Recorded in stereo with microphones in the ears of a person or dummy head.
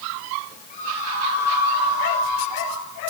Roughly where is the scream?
Left.